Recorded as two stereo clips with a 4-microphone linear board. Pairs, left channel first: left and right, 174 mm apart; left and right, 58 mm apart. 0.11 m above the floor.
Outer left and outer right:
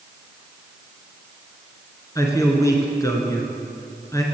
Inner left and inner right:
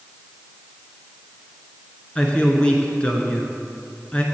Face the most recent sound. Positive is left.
turn(degrees=20)  # may be behind; listen again after turning